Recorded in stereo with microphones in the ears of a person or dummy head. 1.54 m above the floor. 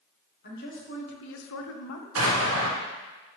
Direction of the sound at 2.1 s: 85° right.